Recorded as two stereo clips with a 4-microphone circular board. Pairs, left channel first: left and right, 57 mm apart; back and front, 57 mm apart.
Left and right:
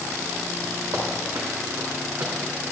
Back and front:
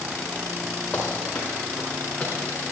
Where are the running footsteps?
110° right, 6 m; by 2.3 s 105° right, 5 m.